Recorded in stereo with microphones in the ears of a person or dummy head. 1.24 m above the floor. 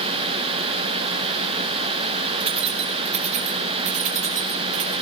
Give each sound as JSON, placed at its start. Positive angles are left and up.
{"t": 2.4, "sound": "keys jangling", "side_deg": -30, "distance_m": 1.6}